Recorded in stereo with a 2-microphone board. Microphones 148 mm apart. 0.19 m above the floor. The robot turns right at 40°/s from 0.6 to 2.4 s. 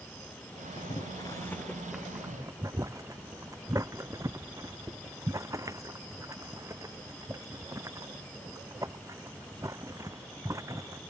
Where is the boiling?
45° left (ahead or behind); by 11.0 s 20° right (ahead or behind).